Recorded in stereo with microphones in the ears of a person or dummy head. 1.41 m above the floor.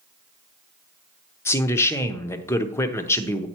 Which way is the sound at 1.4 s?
15° left (ahead or behind).